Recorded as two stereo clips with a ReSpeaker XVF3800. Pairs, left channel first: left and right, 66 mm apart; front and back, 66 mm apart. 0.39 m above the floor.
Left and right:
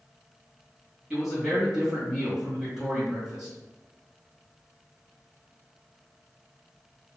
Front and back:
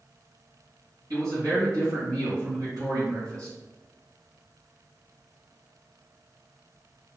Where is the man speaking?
170° right, 1.7 m.